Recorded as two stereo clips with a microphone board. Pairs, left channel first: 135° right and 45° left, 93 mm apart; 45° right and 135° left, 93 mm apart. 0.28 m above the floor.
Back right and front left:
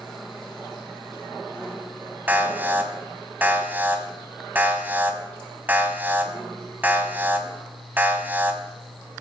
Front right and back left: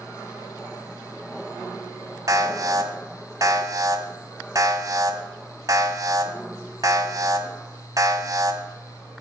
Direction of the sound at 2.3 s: 110° left.